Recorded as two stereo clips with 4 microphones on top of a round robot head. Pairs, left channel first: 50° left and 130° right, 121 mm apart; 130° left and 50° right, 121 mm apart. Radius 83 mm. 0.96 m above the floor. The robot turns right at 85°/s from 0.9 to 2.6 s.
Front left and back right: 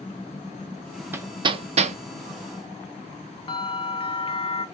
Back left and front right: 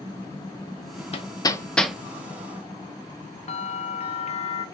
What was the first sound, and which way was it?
Hammering, 155° left.